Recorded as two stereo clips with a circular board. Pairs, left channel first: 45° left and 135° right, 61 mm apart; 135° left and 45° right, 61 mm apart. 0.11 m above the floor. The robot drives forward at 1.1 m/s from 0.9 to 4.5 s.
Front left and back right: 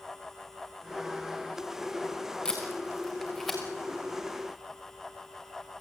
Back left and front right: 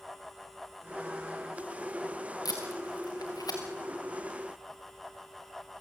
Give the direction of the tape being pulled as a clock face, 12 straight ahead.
8 o'clock.